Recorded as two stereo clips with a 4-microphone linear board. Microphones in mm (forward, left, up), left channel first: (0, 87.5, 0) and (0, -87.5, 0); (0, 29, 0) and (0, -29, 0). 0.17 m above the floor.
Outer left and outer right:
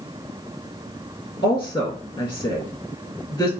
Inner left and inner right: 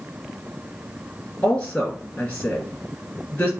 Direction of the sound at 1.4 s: 25° left (ahead or behind).